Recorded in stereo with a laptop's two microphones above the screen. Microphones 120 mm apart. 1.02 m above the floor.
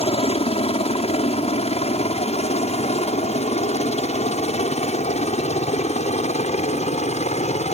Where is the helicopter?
55° left (ahead or behind); by 7.7 s 65° left (ahead or behind).